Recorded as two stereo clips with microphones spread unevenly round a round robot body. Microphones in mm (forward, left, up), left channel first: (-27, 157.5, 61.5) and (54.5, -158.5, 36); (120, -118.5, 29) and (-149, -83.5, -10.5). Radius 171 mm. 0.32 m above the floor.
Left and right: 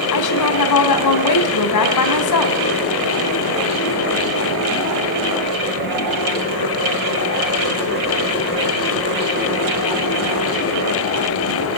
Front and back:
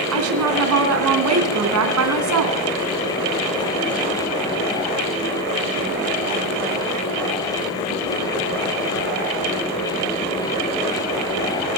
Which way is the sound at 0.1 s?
140° left.